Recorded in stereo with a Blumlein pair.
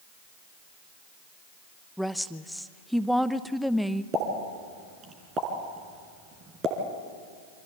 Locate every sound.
2.0 s a woman speaking: straight ahead, 0.8 m
4.1 s a pop: 25° right, 3 m